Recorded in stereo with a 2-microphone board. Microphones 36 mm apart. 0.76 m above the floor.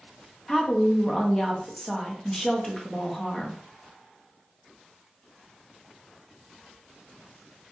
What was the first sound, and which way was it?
A woman speaking, 10° left (ahead or behind).